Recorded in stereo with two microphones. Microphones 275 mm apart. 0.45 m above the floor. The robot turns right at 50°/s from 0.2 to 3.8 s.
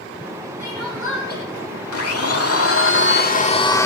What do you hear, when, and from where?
0.6 s crying: 110° left, 6 m; by 1.4 s 155° left, 6 m
1.9 s a blender: 75° left, 1.3 m; by 3.9 s 170° left, 1.3 m